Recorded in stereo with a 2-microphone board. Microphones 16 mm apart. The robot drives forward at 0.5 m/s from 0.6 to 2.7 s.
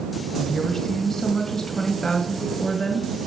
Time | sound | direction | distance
0.4 | a woman speaking | 40° left (ahead or behind) | 1.7 m